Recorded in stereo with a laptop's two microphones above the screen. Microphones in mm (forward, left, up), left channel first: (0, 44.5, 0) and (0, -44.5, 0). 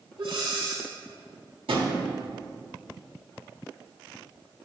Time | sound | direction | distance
0.2 | breathing | 75° right (ahead or behind) | 3 m
1.7 | a drawer | 80° right | 1.6 m